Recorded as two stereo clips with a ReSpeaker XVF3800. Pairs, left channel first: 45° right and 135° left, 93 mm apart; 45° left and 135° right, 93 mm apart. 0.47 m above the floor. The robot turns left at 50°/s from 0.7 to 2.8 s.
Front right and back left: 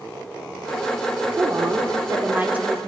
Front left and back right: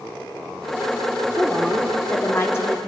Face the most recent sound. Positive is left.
turn(degrees=65)